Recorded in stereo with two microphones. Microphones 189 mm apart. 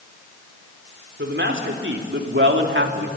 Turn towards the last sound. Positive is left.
turn(degrees=-75)  # may be behind; listen again after turning